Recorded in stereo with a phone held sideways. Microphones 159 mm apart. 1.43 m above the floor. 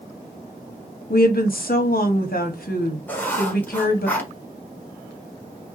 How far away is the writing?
About 1.3 m.